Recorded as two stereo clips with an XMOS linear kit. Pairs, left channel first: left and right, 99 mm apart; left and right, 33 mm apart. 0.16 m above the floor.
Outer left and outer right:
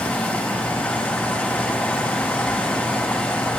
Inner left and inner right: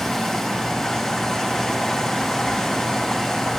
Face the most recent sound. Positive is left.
turn(degrees=15)  # may be behind; listen again after turning